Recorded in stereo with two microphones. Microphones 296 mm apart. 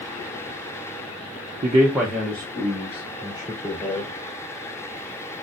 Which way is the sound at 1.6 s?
30° right (ahead or behind).